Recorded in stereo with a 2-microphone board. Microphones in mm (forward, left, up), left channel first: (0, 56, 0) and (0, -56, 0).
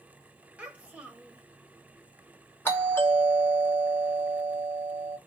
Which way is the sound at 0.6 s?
10° right (ahead or behind).